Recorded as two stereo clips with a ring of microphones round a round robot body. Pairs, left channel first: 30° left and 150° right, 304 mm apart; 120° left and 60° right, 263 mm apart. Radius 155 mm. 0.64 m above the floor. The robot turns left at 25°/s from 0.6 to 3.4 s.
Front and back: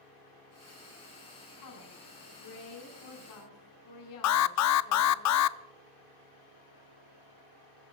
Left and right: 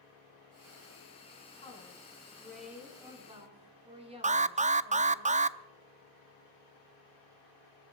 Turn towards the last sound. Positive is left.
turn(degrees=0)